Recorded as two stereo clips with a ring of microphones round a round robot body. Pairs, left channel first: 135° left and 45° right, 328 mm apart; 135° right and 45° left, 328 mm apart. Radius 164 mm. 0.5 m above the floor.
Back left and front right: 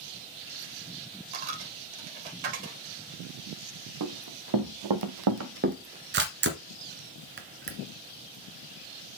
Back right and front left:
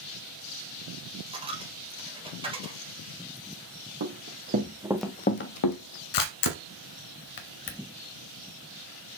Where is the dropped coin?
30° right, 2 m.